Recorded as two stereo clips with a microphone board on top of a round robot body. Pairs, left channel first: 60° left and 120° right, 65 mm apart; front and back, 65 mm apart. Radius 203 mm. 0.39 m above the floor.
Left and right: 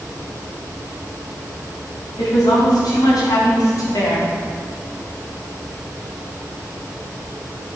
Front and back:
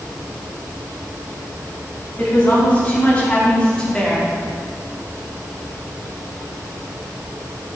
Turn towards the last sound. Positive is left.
turn(degrees=80)